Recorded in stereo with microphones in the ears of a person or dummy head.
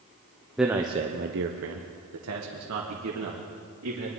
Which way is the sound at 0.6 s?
5° right (ahead or behind).